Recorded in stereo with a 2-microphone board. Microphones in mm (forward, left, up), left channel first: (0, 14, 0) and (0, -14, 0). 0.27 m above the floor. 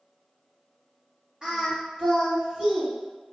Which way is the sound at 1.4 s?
30° right (ahead or behind).